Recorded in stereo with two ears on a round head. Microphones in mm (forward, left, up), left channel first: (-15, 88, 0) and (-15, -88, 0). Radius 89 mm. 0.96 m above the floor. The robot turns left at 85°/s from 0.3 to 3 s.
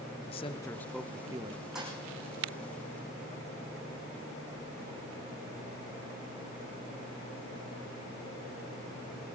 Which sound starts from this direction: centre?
A thud, at 1.8 s.